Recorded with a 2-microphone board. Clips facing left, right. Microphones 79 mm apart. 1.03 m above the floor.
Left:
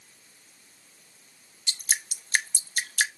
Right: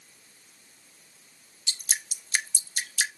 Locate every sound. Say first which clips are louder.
1.7 s dripping: left 3 dB; 45° left (ahead or behind), 0.8 m